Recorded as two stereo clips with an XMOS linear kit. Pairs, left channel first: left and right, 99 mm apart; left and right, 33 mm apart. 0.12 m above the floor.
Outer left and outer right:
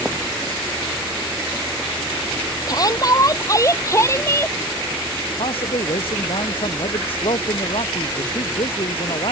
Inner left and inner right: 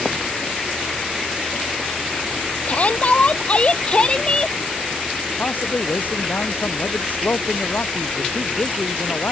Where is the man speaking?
70° left (ahead or behind).